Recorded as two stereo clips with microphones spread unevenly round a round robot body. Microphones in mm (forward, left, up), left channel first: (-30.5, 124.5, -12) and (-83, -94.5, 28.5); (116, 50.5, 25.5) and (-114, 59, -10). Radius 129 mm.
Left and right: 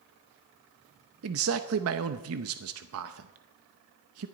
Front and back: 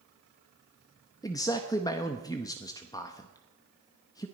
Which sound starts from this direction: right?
A man speaking, at 1.2 s.